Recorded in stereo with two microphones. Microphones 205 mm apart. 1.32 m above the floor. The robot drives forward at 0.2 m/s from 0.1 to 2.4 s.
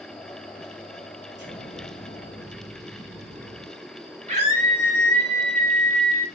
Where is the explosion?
65° right (ahead or behind), 1.7 m; by 3.6 s 60° right (ahead or behind), 1.8 m.